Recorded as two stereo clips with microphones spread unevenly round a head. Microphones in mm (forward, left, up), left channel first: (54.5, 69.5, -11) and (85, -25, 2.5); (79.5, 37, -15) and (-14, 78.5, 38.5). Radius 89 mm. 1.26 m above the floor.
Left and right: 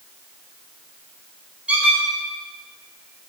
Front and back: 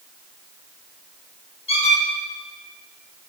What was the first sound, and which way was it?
A squeak, 5° left.